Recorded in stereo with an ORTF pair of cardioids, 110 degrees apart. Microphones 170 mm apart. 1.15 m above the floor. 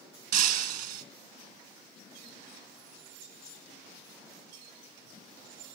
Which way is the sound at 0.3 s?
70° right.